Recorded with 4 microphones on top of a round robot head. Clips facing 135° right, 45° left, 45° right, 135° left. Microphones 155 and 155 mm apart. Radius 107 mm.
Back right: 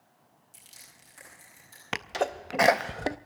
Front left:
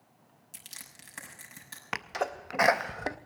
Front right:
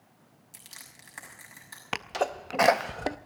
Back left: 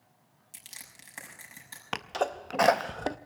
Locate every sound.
0.5 s crushing: 65° left, 6 m
1.9 s a sneeze: 125° right, 0.6 m